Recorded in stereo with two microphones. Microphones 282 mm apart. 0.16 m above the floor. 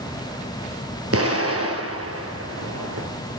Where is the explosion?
55° right (ahead or behind), 3.5 m.